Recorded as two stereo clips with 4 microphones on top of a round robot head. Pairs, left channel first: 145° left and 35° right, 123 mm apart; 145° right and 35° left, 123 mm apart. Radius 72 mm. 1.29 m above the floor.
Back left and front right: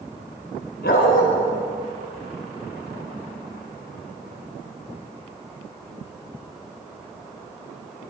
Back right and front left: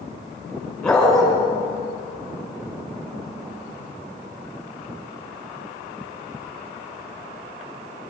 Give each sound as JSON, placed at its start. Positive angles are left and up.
{"t": 0.8, "sound": "a dog barking", "azimuth_deg": 130, "distance_m": 5.5}